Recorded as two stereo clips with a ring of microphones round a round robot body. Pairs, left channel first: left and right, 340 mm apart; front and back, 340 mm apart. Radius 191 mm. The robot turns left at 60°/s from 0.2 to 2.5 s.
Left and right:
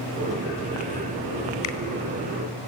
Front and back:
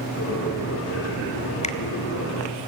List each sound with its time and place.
1.6 s a finger snap: 70° left, 1.5 m; by 1.8 s 60° left, 1.5 m